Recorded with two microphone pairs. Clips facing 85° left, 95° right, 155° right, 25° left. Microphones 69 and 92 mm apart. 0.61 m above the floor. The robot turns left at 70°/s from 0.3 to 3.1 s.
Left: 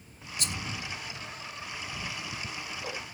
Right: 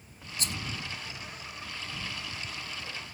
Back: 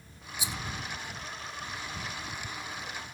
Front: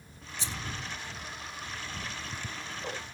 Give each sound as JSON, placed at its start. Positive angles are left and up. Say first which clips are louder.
{"t": 0.4, "sound": "a rattle", "louder": "even, back 1 dB", "azimuth_deg": -80}
{"t": 2.0, "sound": "ticking", "louder": "left 1 dB, back 1 dB", "azimuth_deg": 105}